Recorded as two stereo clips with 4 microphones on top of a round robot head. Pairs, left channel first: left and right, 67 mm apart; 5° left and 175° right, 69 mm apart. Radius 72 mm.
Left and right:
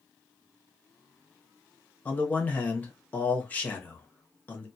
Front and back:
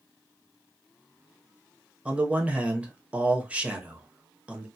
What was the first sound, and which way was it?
A man speaking, 130° left.